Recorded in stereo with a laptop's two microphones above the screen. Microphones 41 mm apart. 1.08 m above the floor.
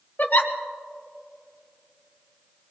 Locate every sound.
0.2 s a giggle: 50° left (ahead or behind), 1.3 m